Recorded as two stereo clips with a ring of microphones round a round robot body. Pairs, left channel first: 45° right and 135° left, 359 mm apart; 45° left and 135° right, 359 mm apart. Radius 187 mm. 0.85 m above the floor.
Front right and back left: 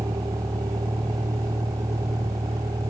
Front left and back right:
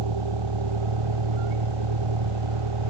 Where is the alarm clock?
No alarm clock in this recording.